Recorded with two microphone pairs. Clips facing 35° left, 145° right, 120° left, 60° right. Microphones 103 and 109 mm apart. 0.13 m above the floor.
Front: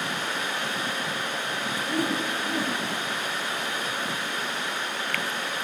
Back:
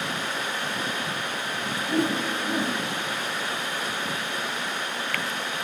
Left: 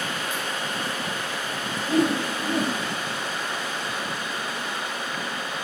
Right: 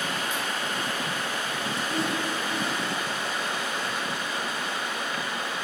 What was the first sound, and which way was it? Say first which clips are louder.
A whoosh: back 3 dB, left 9 dB; 150° left.